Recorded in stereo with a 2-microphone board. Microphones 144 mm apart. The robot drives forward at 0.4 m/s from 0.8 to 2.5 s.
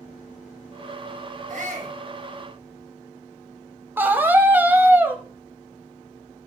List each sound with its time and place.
1.5 s a shout: 65° right (ahead or behind), 4.5 m
4.0 s a scream: 15° right (ahead or behind), 1.2 m